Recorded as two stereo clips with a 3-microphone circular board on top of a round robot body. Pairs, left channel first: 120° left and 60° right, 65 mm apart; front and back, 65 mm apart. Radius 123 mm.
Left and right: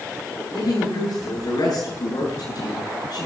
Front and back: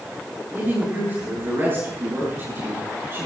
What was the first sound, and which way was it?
A woman speaking, 120° left.